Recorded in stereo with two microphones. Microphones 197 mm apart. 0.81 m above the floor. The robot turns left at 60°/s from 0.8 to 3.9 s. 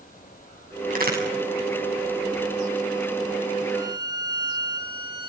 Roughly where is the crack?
Right.